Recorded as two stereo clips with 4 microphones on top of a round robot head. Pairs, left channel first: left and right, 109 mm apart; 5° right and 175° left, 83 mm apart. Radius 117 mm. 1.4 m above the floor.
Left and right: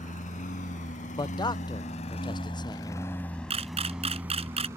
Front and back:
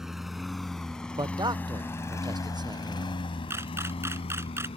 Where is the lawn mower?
90° left; by 4.8 s 20° right.